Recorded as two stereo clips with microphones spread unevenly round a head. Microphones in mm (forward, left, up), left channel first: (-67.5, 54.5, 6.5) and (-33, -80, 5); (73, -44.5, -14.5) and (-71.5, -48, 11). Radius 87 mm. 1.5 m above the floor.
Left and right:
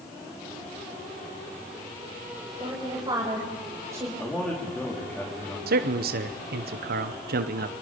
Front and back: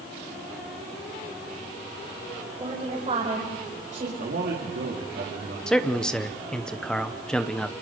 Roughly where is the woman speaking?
Behind right.